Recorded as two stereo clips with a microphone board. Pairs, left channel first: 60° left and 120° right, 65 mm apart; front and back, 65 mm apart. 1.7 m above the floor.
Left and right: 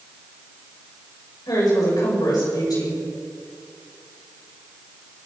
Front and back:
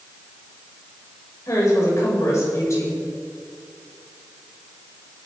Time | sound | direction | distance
1.5 | a woman speaking | 45° left | 7.5 m